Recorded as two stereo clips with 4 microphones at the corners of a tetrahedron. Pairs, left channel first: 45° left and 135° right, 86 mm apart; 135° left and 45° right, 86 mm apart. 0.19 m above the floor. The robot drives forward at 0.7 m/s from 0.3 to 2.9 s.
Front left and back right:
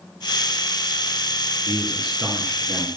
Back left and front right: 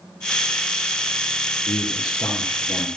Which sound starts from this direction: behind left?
A man speaking, at 1.7 s.